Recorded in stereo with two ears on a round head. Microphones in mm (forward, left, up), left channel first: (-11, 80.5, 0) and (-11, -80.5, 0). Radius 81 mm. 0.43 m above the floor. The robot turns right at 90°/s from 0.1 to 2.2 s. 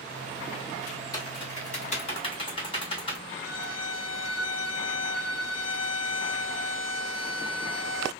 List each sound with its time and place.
1.1 s typing on a keyboard: 20° left (ahead or behind), 1.4 m; by 3.2 s 30° left (ahead or behind), 1.4 m
3.3 s a violin: 75° left (ahead or behind), 0.8 m